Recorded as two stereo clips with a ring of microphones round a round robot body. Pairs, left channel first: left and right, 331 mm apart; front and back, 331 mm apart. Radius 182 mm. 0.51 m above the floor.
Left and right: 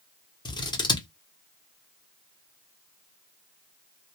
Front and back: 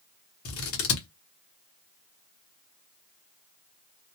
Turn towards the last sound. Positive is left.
turn(degrees=15)